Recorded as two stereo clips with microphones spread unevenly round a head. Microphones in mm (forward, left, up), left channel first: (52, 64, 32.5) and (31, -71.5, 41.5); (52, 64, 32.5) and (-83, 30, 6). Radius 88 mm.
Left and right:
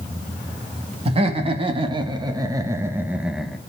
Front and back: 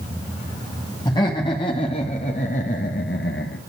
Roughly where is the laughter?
Ahead right.